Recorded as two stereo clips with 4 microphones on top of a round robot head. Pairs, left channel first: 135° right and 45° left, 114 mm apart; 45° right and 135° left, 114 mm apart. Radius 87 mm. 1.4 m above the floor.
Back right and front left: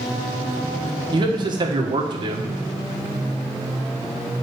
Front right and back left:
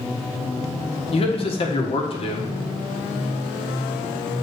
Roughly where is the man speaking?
Ahead.